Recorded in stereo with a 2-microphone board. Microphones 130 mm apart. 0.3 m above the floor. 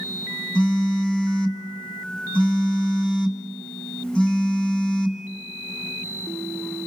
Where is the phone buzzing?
10° left (ahead or behind), 2.5 m.